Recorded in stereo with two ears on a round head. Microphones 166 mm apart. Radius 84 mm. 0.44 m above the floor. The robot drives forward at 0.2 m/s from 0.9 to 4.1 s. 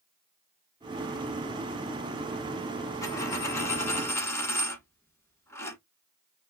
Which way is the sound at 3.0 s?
20° left (ahead or behind).